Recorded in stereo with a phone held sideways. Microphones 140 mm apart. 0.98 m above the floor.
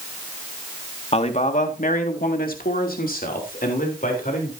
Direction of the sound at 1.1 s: 45° left (ahead or behind).